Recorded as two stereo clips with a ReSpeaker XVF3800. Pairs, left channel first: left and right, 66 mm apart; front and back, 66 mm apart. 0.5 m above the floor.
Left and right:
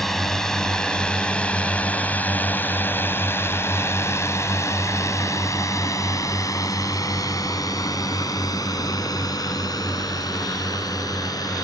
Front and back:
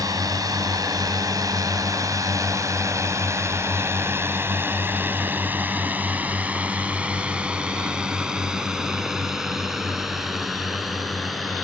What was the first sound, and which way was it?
A drone, 175° left.